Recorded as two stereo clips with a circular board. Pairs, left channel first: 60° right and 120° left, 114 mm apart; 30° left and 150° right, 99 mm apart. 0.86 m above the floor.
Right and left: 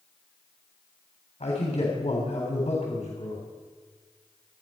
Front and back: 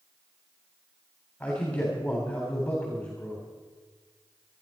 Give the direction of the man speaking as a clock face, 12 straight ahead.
2 o'clock.